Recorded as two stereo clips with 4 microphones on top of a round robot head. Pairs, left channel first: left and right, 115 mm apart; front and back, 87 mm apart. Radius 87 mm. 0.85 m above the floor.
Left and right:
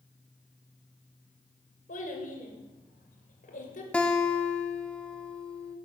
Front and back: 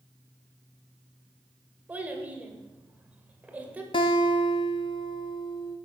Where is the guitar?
10° left, 0.7 m.